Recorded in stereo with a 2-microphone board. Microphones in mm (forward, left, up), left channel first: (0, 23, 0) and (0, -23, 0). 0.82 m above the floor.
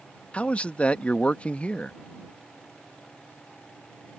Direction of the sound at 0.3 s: 30° left (ahead or behind).